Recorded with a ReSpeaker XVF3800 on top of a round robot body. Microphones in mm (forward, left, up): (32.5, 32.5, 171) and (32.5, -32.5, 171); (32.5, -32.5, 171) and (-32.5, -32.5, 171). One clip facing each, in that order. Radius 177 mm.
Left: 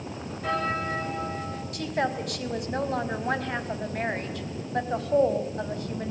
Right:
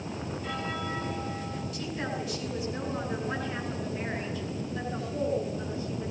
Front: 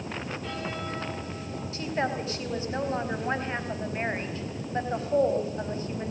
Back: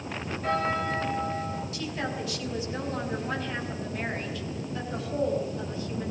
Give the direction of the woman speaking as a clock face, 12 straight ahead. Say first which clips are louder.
Left 9 dB, front 3 dB; 10 o'clock.